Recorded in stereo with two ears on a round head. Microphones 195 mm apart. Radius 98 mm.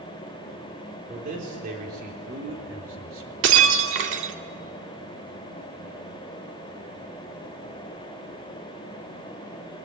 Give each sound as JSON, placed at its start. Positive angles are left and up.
{"t": 1.1, "sound": "a man speaking", "side_deg": -35, "distance_m": 4.0}
{"t": 3.4, "sound": "breaking glass", "side_deg": -55, "distance_m": 1.9}